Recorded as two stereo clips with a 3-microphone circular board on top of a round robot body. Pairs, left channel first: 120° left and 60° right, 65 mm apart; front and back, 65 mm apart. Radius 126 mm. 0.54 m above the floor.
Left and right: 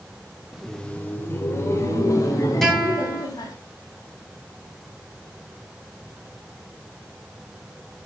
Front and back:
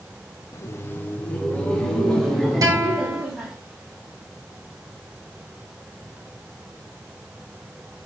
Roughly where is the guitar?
Behind right.